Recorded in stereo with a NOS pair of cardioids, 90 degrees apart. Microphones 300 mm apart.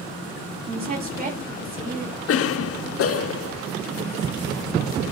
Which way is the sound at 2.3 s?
50° left.